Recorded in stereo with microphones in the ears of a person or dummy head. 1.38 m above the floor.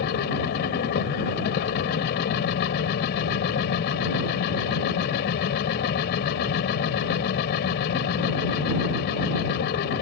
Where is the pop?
I don't hear a pop.